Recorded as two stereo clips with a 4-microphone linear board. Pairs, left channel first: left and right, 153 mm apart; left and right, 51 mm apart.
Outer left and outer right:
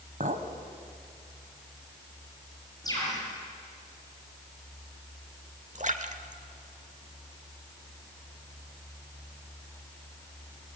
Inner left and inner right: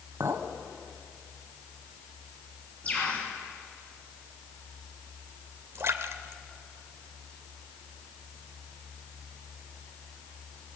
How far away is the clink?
About 1.6 m.